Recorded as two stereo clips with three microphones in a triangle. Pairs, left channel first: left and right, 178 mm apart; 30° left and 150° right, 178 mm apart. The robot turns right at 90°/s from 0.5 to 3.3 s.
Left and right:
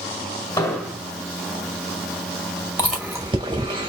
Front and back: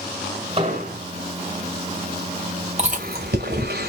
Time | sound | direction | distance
0.6 | an explosion | 160° left | 2.5 m
2.8 | chewing | 165° left | 2 m